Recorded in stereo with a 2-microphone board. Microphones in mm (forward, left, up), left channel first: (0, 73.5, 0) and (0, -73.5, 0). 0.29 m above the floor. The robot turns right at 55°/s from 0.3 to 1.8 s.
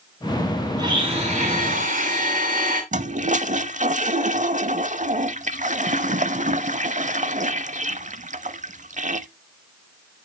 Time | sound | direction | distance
0.8 | a blender | 150° right | 3 m
2.9 | a toilet flushing | 60° right (ahead or behind) | 0.5 m